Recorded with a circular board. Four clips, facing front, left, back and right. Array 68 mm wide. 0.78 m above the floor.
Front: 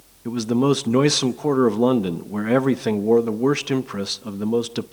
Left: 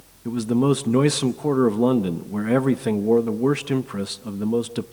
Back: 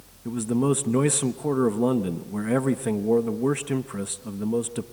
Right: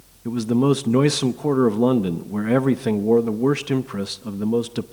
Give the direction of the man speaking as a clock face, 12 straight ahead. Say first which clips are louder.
Right 1 dB, front 4 dB; 12 o'clock.